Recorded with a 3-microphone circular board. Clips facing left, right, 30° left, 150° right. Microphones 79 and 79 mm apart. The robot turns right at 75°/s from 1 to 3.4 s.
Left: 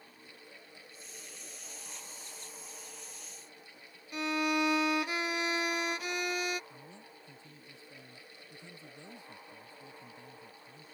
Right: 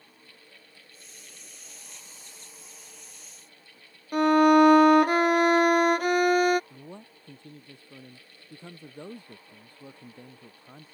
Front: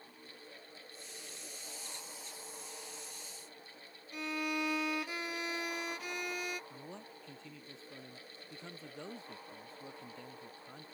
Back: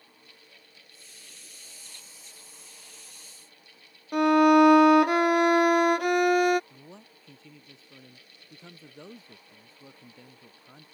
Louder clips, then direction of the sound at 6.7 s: Right 7 dB, front 1 dB; 60° right.